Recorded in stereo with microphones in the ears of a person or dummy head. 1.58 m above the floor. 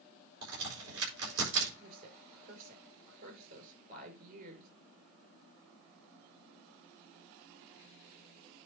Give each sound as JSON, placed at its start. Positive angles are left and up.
{"t": 0.4, "sound": "a crack", "side_deg": -70, "distance_m": 6.5}
{"t": 1.8, "sound": "a woman speaking", "side_deg": -45, "distance_m": 5.0}